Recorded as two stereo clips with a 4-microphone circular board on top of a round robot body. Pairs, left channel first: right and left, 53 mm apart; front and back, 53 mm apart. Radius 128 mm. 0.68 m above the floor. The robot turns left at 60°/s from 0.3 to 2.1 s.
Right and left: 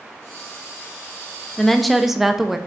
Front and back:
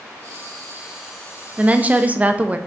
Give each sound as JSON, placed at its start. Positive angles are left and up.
{"t": 1.6, "sound": "a woman speaking", "azimuth_deg": -160, "distance_m": 0.5}